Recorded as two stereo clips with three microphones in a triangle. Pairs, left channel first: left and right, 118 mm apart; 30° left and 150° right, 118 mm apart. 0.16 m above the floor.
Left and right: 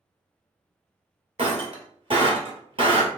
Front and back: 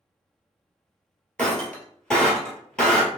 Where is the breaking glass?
50° right, 1.3 m.